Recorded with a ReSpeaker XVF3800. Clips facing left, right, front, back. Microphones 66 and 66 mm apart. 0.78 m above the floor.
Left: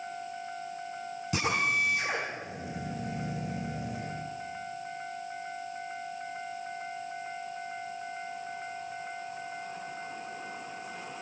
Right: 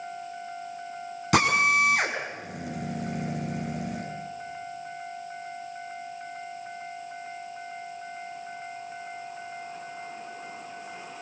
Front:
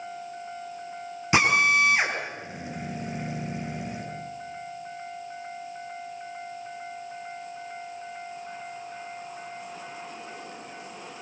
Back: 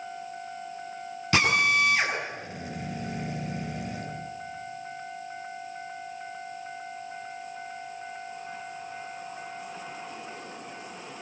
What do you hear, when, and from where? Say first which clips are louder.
1.3 s a drill: right 8 dB, front 2 dB; 70° right, 6.5 m